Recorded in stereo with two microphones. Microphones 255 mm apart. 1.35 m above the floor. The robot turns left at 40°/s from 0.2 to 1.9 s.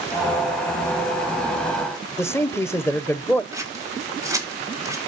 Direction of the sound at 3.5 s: 10° right (ahead or behind).